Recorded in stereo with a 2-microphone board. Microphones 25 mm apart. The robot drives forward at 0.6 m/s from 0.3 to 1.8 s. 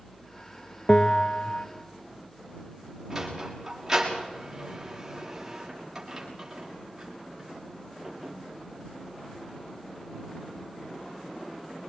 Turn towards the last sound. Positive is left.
turn(degrees=-15)  # may be behind; listen again after turning